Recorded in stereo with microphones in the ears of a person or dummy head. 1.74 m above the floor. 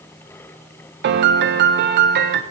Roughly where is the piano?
Right.